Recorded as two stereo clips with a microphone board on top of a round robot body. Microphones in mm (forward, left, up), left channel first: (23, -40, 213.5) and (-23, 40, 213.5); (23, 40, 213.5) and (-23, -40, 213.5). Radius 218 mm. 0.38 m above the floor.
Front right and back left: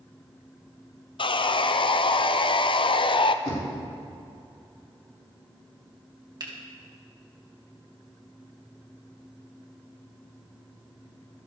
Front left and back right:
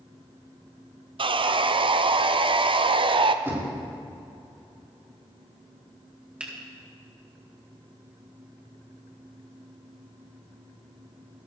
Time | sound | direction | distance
1.2 | sawing | 90° right | 0.5 m
3.5 | knocking | 55° right | 4.5 m
6.4 | a finger snap | 165° left | 2.5 m